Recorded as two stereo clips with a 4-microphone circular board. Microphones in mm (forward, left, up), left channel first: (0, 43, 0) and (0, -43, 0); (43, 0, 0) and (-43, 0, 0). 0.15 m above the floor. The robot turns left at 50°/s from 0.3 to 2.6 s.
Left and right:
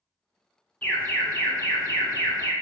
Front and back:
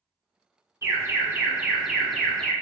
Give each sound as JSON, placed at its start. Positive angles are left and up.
{"t": 0.8, "sound": "an alarm", "azimuth_deg": 155, "distance_m": 0.9}